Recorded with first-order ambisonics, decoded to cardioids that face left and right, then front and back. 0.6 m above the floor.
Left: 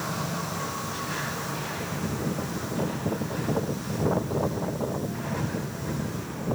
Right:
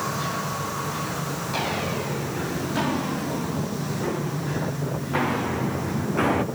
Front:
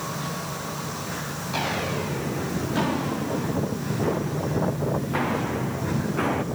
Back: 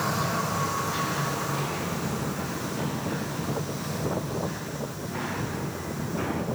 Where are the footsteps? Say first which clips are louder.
Right 6 dB, front 4 dB; 40° right, 5 m; by 6.5 s 65° right, 2 m.